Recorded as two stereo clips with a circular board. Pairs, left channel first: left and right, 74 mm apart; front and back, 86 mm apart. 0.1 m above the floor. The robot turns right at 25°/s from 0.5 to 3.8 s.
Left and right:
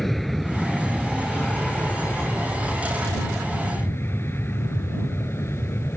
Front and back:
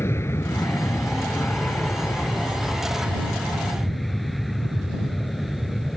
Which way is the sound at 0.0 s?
5° left.